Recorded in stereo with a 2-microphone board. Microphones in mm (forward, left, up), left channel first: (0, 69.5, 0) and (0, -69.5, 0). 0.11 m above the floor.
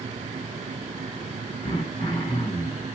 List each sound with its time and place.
1.6 s throat clearing: 45° left (ahead or behind), 1.9 m